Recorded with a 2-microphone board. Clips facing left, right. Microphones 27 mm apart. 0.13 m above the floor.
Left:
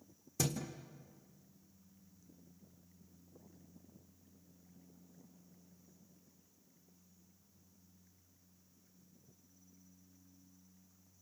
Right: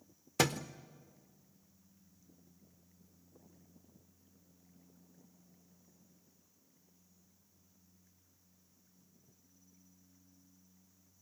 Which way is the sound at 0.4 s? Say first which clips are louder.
Right 7 dB; 85° right.